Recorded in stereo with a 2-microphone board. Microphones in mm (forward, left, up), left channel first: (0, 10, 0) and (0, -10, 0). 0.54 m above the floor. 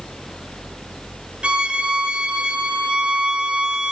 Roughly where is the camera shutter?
I don't hear a camera shutter.